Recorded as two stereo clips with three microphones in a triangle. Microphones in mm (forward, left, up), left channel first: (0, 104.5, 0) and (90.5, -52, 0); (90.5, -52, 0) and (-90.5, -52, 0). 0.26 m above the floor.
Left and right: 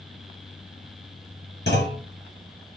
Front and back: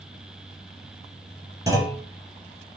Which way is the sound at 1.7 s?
105° left.